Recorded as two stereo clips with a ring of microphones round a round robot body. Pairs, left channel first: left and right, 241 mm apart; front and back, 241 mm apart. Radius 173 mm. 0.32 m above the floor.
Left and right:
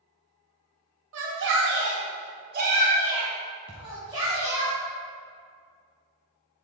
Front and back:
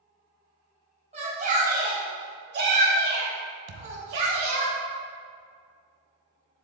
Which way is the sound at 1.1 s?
115° right.